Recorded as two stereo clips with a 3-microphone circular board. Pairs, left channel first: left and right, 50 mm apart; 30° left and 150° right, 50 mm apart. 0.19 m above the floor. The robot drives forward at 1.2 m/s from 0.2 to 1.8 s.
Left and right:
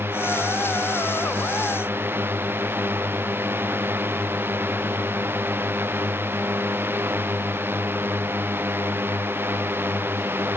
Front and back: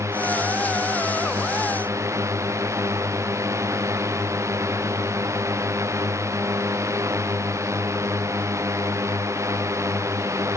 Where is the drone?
130° right.